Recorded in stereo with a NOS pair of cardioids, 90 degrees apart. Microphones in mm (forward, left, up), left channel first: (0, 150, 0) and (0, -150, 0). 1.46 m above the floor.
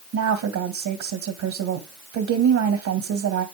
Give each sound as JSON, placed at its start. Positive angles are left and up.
{"t": 0.1, "sound": "a woman speaking", "azimuth_deg": -65, "distance_m": 2.5}